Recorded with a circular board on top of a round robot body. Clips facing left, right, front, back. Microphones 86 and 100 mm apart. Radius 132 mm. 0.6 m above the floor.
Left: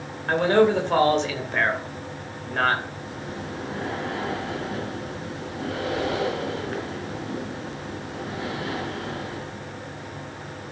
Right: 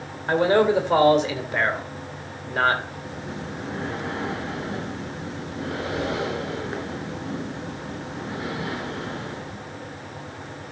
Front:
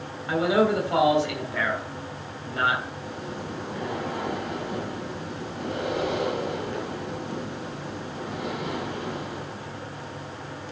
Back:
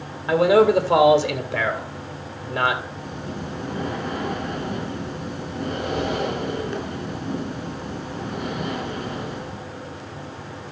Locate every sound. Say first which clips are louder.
0.3 s a man speaking: even, back 6 dB; 170° right, 2.5 m
3.0 s breathing: even, back 2 dB; 160° right, 4.5 m